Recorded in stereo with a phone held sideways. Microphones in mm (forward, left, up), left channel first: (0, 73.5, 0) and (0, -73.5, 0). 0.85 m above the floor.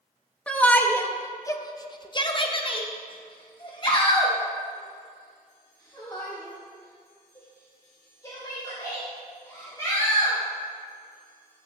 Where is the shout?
10° left (ahead or behind), 1.4 m; by 10.3 s 20° left (ahead or behind), 5.5 m.